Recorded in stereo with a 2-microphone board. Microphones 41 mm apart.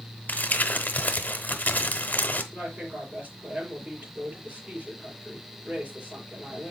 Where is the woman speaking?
25° right (ahead or behind), 5.5 m.